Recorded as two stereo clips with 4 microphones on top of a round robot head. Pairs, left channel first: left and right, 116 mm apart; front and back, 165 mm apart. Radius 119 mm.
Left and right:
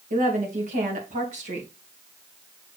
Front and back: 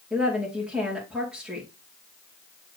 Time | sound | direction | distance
0.1 | a woman speaking | 95° right | 2.5 m